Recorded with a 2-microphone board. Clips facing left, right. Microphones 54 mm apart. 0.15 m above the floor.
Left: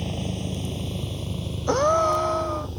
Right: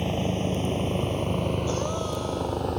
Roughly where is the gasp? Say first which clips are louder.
Left 9 dB; left.